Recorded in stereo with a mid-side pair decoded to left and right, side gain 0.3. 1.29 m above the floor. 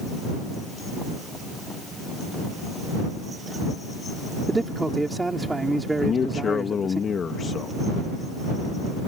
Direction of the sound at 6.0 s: 65° left.